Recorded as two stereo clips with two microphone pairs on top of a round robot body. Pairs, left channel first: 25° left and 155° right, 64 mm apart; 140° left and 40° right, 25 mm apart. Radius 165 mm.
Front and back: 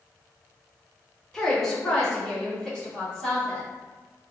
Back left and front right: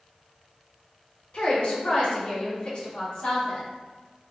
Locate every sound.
1.3 s a woman speaking: 110° left, 1.1 m; by 3.7 s 115° left, 3 m